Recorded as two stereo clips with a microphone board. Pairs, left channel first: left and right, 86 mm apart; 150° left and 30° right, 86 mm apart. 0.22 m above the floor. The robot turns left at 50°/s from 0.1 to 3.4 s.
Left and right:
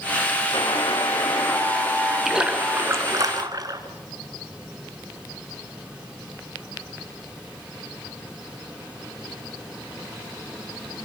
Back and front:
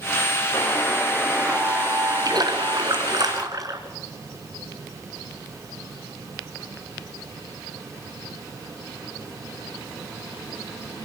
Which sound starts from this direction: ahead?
A splash, at 2.2 s.